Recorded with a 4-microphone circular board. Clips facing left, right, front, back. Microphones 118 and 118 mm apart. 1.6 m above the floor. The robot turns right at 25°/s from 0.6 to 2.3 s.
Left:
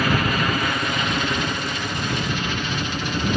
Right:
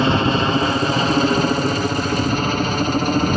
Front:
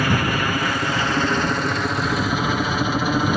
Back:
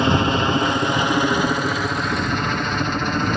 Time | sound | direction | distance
0.0 | a helicopter | 130° right | ?